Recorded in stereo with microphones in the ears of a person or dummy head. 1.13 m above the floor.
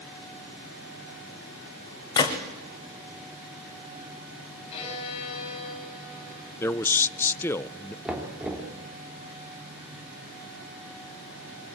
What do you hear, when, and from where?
2.2 s a gunshot: 20° left (ahead or behind), 1.5 m
4.7 s a violin: 30° left (ahead or behind), 7 m
6.6 s a man speaking: 10° left (ahead or behind), 0.5 m
8.1 s knocking: 5° right (ahead or behind), 2.5 m